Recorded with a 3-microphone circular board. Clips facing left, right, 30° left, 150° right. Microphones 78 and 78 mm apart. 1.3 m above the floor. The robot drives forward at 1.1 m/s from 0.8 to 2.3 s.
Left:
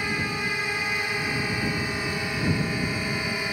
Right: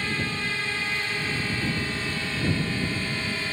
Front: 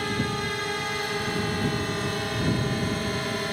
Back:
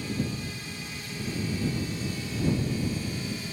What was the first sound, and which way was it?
A drone, 15° left.